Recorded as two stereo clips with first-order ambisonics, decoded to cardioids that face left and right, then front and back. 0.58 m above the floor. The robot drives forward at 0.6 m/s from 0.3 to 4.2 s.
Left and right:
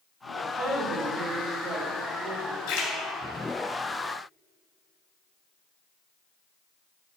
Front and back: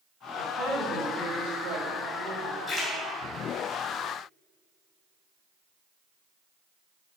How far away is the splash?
About 3.5 m.